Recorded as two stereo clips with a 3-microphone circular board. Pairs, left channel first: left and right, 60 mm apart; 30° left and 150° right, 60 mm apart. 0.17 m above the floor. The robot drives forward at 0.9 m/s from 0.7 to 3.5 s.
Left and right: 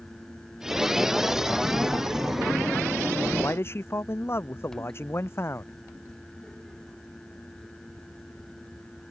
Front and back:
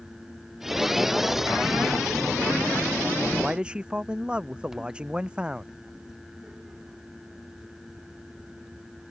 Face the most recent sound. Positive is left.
turn(degrees=135)